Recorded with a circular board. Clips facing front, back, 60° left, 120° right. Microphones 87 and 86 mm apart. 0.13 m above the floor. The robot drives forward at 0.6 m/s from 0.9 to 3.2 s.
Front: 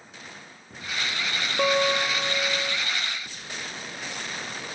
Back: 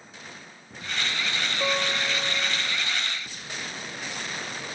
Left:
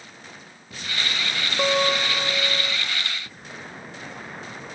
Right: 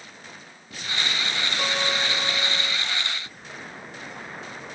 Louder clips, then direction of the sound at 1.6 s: Front 6 dB, left 7 dB; straight ahead.